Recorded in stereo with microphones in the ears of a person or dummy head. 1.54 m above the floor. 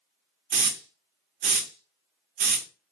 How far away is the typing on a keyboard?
I don't hear typing on a keyboard.